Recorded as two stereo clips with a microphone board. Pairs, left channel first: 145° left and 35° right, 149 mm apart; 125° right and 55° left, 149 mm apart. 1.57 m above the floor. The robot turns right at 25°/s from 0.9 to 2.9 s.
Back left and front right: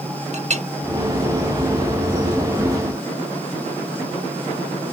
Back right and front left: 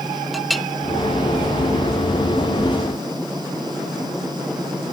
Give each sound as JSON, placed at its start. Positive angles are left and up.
{"t": 0.3, "sound": "a clink", "azimuth_deg": -35}